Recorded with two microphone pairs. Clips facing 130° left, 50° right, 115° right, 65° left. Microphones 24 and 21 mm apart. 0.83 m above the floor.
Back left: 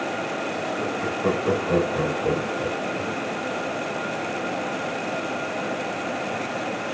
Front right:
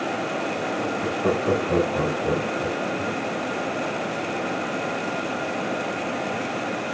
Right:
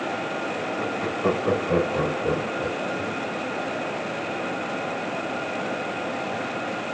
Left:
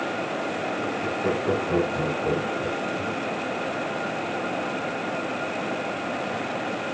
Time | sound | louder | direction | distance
0.8 | laughter | even, right 1 dB | 140° right | 5 m